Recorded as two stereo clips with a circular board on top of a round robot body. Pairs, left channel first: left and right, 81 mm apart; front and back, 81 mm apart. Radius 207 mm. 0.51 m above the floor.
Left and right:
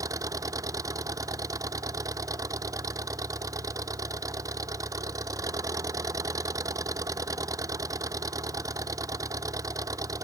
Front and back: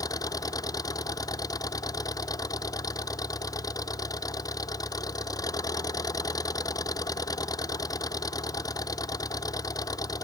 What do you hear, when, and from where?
0.0 s an engine running: 40° right